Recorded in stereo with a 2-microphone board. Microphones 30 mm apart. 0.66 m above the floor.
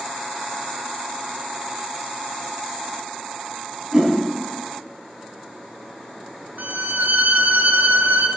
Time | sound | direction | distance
3.9 | a whoosh | 20° right (ahead or behind) | 5 m
6.6 | a violin | 75° right (ahead or behind) | 1.8 m